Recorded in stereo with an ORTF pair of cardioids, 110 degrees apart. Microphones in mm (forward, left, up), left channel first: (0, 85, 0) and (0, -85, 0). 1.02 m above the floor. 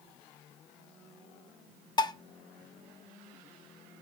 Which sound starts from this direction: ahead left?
Dishes clattering, at 2.0 s.